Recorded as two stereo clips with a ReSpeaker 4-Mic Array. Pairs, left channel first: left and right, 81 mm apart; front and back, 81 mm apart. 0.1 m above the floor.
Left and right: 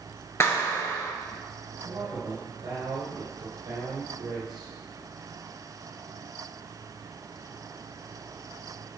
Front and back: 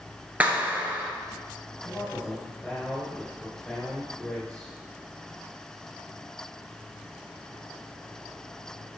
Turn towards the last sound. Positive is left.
turn(degrees=-75)